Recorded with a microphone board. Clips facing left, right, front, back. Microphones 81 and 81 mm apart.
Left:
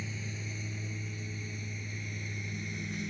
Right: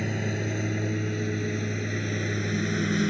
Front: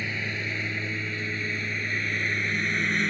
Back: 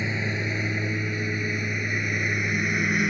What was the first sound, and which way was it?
A lawn mower, 110° right.